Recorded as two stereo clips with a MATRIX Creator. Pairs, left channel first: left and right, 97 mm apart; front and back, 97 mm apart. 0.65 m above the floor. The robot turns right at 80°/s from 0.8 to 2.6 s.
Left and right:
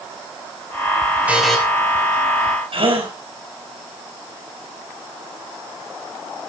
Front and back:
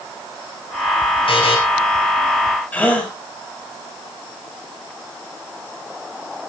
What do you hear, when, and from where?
1.3 s a buzzer: 15° right, 4.5 m; by 1.6 s 10° left, 4.5 m
2.7 s a gasp: 75° right, 4 m